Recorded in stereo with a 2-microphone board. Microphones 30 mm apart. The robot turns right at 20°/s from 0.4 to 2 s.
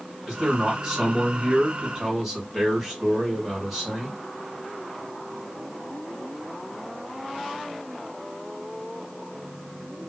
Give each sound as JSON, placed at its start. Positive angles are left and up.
{"t": 0.3, "sound": "a man speaking", "azimuth_deg": -60, "distance_m": 1.6}